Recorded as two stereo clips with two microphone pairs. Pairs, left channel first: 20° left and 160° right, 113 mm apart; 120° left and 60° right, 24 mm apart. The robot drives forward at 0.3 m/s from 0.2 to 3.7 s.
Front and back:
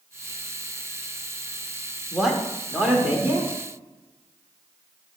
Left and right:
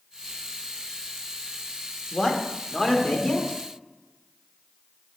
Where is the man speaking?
110° left, 1.3 m; by 3.6 s 140° left, 1.5 m.